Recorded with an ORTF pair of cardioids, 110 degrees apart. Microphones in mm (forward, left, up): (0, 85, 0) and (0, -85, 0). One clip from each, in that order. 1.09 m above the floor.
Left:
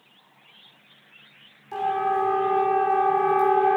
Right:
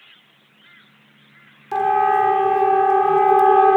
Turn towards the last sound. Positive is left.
turn(degrees=-55)